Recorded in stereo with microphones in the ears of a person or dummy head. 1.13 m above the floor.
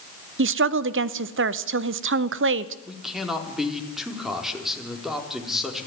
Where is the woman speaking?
55° right (ahead or behind), 0.7 m.